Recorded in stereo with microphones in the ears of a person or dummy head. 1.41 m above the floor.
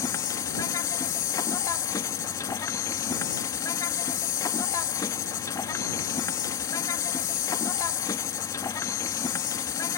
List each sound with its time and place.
0.0 s an insect: 15° left (ahead or behind)